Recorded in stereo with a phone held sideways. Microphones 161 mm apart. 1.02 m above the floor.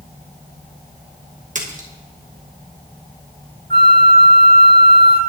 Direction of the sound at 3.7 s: 75° right (ahead or behind).